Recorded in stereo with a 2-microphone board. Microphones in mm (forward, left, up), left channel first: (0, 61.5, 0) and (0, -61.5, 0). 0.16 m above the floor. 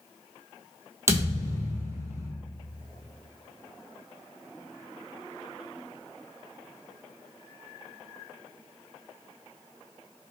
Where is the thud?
20° right (ahead or behind), 1.1 m.